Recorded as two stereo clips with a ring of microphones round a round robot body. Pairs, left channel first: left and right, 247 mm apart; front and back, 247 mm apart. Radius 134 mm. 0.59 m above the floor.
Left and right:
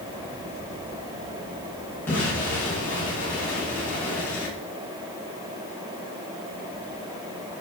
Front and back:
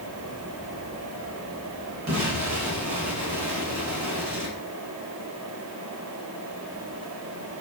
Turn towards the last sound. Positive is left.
turn(degrees=170)